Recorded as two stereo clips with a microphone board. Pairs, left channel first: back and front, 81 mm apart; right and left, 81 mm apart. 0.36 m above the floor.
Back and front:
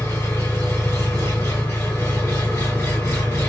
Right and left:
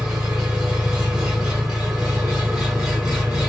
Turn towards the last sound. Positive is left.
turn(degrees=165)